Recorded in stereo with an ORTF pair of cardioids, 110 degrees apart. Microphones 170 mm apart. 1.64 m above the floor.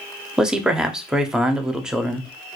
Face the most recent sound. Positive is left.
turn(degrees=-5)